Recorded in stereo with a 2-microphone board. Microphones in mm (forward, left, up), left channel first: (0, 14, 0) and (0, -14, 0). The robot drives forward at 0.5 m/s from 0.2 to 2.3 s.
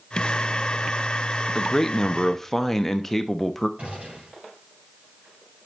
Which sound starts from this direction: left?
A man speaking, at 1.6 s.